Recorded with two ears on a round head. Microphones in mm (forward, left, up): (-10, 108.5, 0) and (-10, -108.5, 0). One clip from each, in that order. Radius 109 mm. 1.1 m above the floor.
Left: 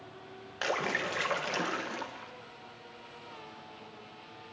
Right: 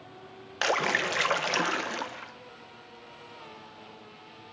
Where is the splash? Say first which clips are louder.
Right 5 dB; 25° right (ahead or behind), 0.9 m.